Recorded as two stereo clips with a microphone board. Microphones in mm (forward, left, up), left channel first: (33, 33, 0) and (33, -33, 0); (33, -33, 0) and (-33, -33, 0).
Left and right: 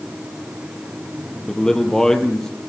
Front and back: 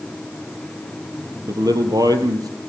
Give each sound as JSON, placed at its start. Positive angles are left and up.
{"t": 1.5, "sound": "a man speaking", "azimuth_deg": 170, "distance_m": 3.5}